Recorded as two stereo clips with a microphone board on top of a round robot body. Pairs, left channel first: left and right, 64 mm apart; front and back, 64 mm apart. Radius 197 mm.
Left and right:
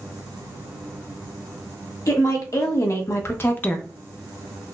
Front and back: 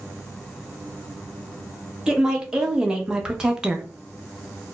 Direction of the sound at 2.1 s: 105° left.